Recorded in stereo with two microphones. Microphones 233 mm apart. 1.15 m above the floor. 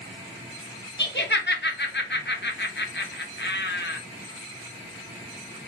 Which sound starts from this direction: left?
Laughter, at 1.0 s.